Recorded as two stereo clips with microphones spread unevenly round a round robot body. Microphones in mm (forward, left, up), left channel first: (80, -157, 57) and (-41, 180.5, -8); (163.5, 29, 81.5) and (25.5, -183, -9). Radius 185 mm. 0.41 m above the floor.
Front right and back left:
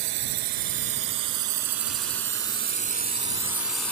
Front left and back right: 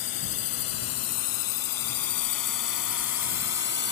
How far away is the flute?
No flute in this recording.